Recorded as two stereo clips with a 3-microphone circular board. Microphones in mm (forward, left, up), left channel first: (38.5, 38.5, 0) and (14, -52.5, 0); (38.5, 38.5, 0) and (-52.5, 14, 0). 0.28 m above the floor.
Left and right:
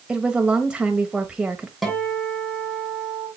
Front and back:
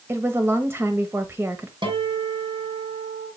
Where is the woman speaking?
170° right, 1.2 m.